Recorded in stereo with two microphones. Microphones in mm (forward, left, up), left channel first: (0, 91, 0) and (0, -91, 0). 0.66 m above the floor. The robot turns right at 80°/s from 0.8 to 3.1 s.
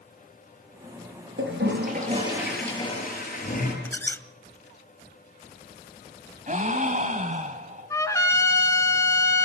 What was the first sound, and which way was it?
A toilet flushing, 95° right.